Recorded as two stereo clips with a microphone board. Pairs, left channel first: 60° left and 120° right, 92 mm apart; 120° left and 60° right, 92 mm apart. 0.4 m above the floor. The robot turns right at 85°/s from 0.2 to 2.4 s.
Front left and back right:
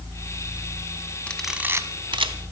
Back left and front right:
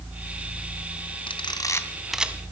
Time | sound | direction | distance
1.3 | a camera shutter | 135° left | 0.9 m